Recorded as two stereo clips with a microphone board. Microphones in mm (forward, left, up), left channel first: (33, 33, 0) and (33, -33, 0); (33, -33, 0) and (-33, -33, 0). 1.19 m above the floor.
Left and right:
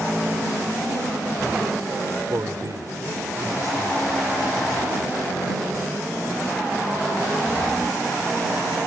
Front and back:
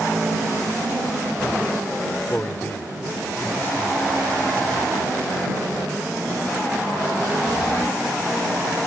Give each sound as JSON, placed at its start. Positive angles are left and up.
{"t": 2.3, "sound": "a man speaking", "azimuth_deg": -60}